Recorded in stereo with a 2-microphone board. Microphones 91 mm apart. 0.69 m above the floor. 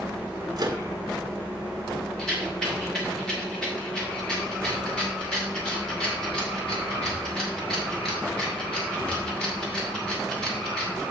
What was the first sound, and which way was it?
A microwave, 50° right (ahead or behind).